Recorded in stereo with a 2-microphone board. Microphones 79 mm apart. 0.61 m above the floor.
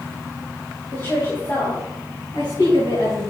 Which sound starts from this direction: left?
A woman speaking, at 0.9 s.